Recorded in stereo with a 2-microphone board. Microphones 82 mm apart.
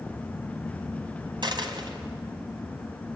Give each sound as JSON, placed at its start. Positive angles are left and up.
{"t": 1.4, "sound": "a dropped coin", "side_deg": -60, "distance_m": 2.5}